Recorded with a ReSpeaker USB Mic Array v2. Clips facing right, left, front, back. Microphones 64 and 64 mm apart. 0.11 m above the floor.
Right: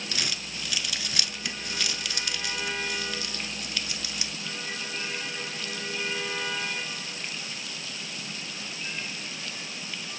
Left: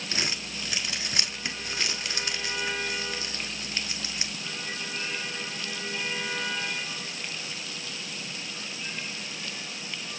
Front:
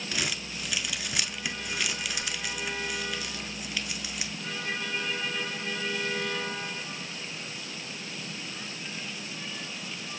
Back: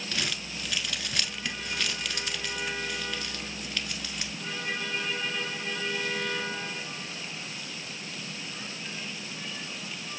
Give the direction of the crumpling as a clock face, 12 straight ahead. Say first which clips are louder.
Left 3 dB, front 1 dB; 10 o'clock.